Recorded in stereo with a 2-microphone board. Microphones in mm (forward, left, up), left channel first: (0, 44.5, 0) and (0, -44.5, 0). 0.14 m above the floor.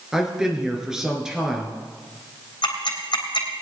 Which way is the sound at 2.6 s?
60° left (ahead or behind).